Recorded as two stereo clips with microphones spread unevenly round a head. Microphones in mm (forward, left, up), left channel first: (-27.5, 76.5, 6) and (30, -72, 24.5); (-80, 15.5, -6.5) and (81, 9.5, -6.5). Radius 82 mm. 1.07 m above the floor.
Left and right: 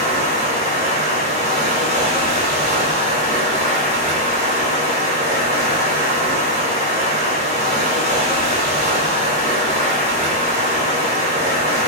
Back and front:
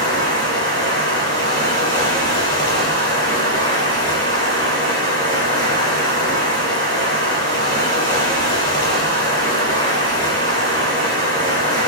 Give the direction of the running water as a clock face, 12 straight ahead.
4 o'clock.